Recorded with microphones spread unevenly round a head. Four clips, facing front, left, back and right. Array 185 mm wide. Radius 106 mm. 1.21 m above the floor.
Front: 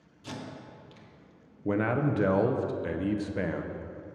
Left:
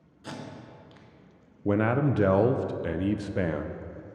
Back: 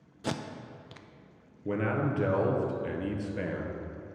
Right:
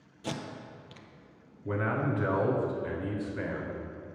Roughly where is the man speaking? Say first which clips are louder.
Left 6 dB, front 3 dB; left.